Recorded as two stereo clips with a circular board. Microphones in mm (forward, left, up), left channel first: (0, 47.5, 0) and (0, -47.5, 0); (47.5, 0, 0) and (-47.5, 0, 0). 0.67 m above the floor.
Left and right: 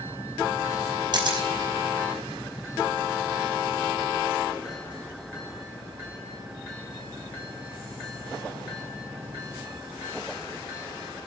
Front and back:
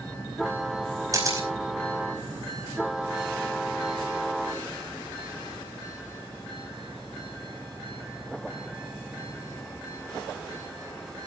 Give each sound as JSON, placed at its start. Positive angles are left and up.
{"t": 1.1, "sound": "a camera shutter", "azimuth_deg": -125, "distance_m": 5.0}